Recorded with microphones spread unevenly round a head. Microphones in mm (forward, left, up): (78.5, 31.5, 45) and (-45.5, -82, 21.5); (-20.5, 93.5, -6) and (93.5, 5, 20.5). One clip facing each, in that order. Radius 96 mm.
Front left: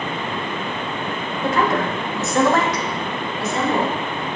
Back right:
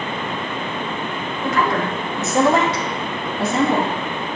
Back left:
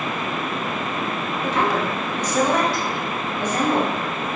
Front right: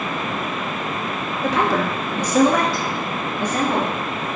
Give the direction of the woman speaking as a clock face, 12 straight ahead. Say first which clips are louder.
Front left 1 dB, front right 2 dB; 1 o'clock.